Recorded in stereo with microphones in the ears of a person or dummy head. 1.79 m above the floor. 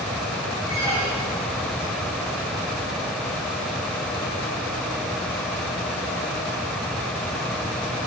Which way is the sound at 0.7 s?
20° left (ahead or behind).